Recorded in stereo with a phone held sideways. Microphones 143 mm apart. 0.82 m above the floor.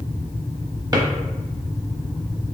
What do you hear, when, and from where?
0.9 s a drawer: 25° right (ahead or behind), 0.7 m